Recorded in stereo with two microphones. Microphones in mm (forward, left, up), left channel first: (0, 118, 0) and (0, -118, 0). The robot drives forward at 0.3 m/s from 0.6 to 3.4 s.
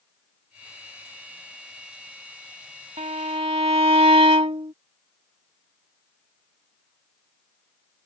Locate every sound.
3.0 s a violin: 30° right (ahead or behind); by 4.7 s 25° right (ahead or behind)